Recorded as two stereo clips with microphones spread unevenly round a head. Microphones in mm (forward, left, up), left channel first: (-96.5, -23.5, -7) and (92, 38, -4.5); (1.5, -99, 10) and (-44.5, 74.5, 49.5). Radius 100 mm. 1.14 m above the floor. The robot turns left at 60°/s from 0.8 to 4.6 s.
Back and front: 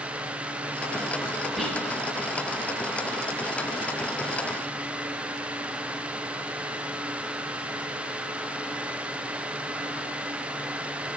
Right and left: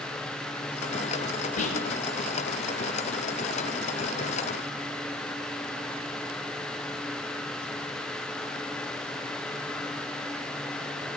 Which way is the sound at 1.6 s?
70° right.